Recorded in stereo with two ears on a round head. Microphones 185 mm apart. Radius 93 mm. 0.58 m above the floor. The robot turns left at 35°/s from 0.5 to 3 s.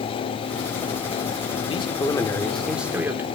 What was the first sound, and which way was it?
A man speaking, 35° left.